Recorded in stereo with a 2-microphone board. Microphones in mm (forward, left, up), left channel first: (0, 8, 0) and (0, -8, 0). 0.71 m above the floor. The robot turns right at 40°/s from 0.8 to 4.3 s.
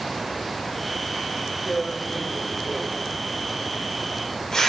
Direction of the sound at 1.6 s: 20° left (ahead or behind).